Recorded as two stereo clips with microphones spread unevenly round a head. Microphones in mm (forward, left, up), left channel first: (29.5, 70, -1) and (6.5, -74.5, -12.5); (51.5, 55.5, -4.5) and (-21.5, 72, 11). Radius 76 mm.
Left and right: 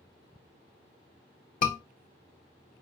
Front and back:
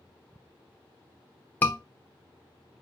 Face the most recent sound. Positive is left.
turn(degrees=50)